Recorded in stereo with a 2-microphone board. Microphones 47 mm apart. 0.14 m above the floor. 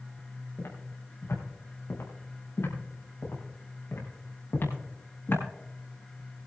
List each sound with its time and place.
0.6 s footsteps: 80° left, 5 m; by 5.4 s 50° left (ahead or behind), 6 m